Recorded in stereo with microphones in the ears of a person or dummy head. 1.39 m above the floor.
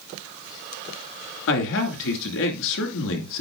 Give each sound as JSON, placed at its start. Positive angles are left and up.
{"t": 1.5, "sound": "a man speaking", "side_deg": 70, "distance_m": 2.5}